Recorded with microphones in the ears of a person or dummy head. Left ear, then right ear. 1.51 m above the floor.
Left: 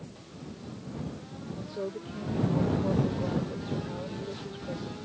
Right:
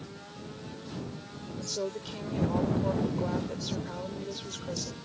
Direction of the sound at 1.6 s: 85° right.